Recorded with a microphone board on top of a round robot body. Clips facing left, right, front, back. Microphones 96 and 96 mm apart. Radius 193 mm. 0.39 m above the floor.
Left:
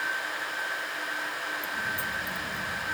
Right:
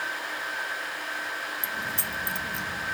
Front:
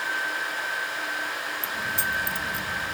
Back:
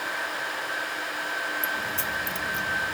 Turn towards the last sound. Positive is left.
turn(degrees=-80)